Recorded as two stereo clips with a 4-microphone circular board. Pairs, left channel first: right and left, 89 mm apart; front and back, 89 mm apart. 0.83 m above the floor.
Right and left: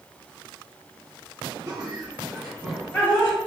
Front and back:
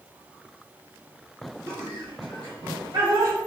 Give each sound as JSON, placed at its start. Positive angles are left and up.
{"t": 1.7, "sound": "laughter", "azimuth_deg": 130, "distance_m": 1.1}